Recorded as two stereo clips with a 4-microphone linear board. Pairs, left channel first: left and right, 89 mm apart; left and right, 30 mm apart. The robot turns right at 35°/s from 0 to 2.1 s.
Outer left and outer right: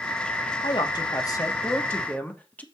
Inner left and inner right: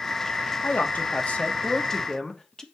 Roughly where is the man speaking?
Left.